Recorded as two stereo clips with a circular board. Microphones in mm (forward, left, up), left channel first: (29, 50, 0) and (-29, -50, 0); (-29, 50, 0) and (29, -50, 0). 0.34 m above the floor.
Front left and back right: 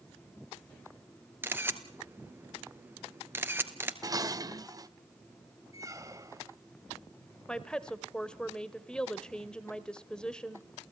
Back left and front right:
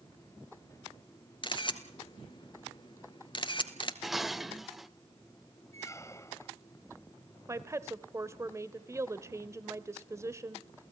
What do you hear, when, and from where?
1.4 s a camera shutter: 170° left, 1.6 m
4.0 s dishes clattering: 145° right, 0.7 m
5.7 s a squeak: straight behind, 0.7 m
7.5 s a woman speaking: 15° right, 1.0 m